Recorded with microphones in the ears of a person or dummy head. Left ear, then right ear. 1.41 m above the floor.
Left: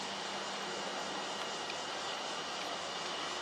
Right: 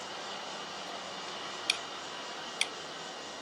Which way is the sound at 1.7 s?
50° right (ahead or behind).